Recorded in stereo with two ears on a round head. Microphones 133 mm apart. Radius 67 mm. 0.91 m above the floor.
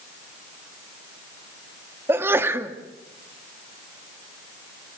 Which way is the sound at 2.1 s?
15° right (ahead or behind).